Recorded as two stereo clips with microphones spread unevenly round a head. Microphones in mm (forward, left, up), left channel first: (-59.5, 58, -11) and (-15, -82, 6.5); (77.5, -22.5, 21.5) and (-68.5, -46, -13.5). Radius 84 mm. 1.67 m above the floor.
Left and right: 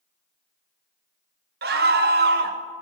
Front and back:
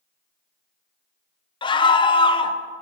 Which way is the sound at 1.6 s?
45° right.